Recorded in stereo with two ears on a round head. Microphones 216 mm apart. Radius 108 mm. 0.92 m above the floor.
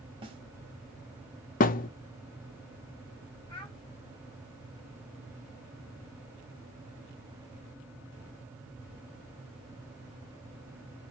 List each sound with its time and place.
0.2 s a snare drum: 20° right (ahead or behind), 1.2 m
1.6 s a thud: 35° left (ahead or behind), 0.5 m
3.5 s a child speaking: 20° left (ahead or behind), 4 m